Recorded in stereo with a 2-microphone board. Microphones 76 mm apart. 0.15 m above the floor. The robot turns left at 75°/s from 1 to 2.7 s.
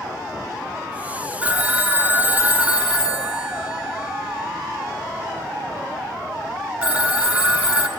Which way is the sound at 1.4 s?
15° right (ahead or behind).